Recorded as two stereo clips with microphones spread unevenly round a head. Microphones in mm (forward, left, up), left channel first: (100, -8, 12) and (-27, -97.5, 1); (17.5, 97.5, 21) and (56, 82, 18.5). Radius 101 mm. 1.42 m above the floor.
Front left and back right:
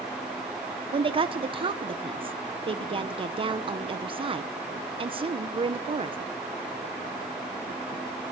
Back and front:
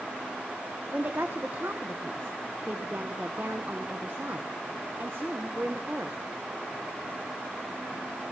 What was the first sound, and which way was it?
A woman speaking, 90° right.